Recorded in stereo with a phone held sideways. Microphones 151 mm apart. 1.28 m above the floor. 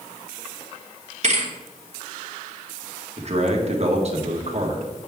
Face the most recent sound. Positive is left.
turn(degrees=-45)  # may be behind; listen again after turning